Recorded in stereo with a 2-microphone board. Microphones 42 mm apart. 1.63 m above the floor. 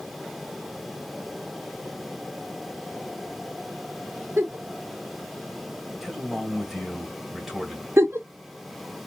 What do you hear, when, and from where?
4.4 s a giggle: 70° right (ahead or behind), 1.1 m
6.0 s a man speaking: 10° right (ahead or behind), 1.8 m
8.0 s a giggle: 75° right (ahead or behind), 0.5 m